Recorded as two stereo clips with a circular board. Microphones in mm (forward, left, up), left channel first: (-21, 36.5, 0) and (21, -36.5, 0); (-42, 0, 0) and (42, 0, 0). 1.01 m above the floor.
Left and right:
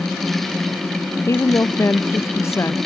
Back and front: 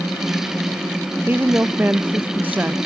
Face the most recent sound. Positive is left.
turn(degrees=65)